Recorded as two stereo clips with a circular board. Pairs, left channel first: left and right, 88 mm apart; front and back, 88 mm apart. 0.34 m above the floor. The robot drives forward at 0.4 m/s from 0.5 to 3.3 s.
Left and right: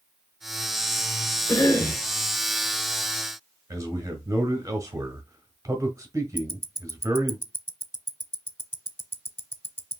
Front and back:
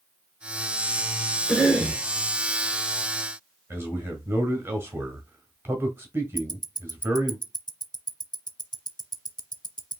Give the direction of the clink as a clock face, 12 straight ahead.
I don't hear a clink.